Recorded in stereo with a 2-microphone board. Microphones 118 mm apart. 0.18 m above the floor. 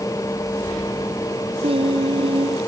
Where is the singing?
55° right (ahead or behind).